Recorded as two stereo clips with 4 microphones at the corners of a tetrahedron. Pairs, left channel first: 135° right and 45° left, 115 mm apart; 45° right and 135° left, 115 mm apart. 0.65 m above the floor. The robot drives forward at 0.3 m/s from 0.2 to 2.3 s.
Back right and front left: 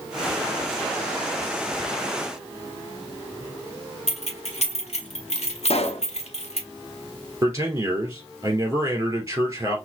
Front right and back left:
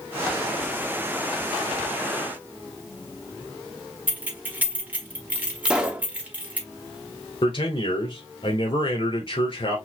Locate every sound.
4.1 s keys jangling: 150° right, 1.2 m
5.7 s a pop: 145° right, 0.7 m
7.4 s a man speaking: 20° right, 2.5 m